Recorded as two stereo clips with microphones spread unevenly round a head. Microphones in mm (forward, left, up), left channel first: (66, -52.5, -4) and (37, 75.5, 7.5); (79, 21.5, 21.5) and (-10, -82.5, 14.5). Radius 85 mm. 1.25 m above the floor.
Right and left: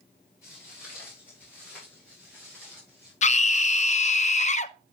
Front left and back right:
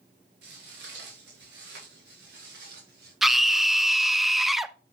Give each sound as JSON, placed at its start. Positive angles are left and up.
{"t": 0.4, "sound": "footsteps", "azimuth_deg": -150, "distance_m": 7.5}
{"t": 3.2, "sound": "a scream", "azimuth_deg": -45, "distance_m": 0.9}